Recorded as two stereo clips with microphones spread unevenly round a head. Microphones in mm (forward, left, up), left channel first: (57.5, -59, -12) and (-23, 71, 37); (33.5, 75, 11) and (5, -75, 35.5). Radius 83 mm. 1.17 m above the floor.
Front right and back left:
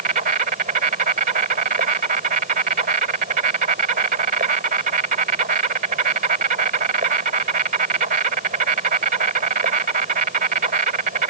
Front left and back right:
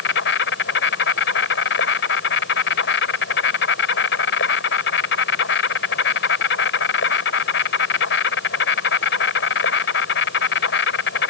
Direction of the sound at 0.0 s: 80° left.